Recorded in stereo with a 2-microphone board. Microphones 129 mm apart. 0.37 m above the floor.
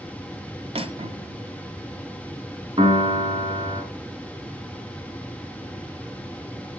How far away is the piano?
About 2 m.